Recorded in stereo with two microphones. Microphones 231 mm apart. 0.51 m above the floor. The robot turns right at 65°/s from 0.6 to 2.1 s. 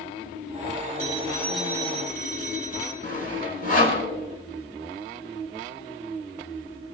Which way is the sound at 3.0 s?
40° left (ahead or behind).